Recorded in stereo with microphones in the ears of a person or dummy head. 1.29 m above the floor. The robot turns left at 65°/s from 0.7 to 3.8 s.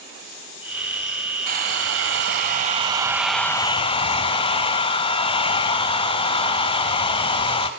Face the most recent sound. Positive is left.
turn(degrees=150)